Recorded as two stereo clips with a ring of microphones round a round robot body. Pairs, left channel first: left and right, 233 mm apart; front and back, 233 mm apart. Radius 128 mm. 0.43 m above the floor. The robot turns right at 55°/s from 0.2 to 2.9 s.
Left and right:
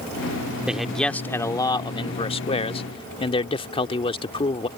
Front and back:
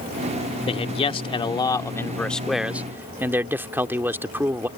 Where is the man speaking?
10° right; by 4.7 s 110° left.